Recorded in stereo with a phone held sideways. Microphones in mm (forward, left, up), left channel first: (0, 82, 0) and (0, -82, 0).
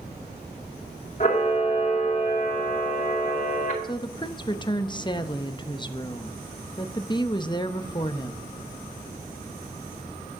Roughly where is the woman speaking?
Left.